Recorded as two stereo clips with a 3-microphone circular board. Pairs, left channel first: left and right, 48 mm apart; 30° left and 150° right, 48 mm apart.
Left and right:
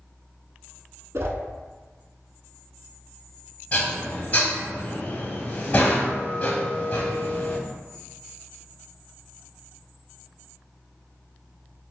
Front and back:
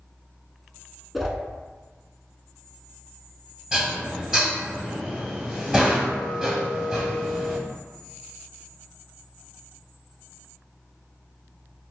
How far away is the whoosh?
About 0.5 m.